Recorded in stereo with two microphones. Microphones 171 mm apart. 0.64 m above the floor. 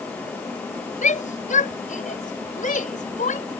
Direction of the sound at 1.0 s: 50° left (ahead or behind).